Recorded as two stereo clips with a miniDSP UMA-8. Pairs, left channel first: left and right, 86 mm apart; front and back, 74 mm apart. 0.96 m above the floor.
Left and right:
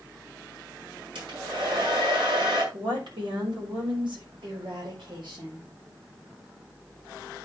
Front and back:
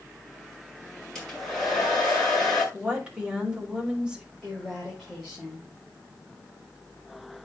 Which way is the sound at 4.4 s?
95° right.